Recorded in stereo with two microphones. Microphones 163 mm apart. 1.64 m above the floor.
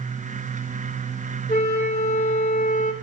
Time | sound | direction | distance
1.5 | a flute | 45° left (ahead or behind) | 4.5 m